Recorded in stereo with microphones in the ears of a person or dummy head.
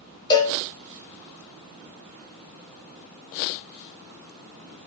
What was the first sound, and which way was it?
A cowbell, 25° left (ahead or behind).